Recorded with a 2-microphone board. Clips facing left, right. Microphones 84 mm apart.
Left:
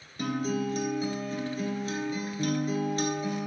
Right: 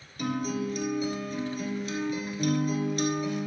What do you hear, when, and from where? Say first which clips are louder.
0.2 s a guitar: even; 35° left (ahead or behind), 1.4 m